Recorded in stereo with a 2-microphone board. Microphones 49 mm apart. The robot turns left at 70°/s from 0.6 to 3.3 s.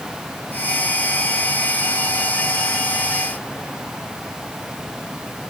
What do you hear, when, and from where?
Only background noise.